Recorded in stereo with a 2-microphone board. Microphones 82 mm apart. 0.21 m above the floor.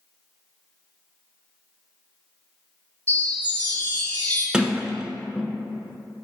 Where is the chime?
25° left (ahead or behind), 1.6 m.